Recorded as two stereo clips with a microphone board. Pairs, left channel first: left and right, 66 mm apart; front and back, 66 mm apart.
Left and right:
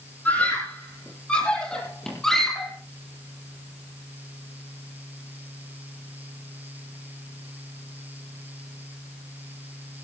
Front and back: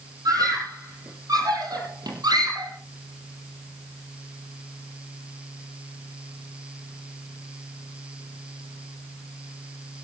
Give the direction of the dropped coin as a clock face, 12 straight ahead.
No dropped coin in this recording.